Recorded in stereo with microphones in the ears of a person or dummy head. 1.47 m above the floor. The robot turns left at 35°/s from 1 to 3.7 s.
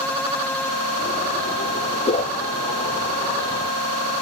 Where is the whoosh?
35° left (ahead or behind), 0.9 m; by 2.3 s 40° left (ahead or behind), 0.9 m.